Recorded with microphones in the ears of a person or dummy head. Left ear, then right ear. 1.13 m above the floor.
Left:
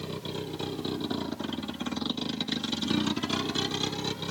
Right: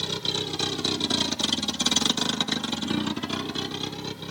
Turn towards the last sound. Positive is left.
turn(degrees=5)  # may be behind; listen again after turning